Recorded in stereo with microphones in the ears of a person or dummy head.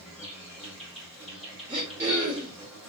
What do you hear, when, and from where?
0.0 s an insect: centre (ahead or behind), 2 m
1.7 s throat clearing: 10° right (ahead or behind), 1.8 m